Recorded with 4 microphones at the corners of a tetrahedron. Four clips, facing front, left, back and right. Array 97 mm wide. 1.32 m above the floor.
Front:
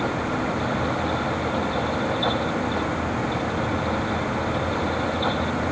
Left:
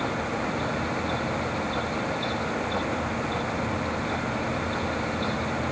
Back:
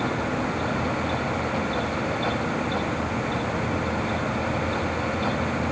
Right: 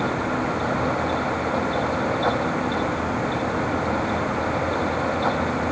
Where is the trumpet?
I don't hear a trumpet.